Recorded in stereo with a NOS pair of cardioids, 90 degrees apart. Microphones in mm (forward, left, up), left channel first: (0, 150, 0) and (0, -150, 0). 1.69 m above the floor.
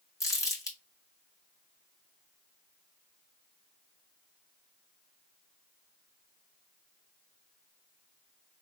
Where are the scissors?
I don't hear scissors.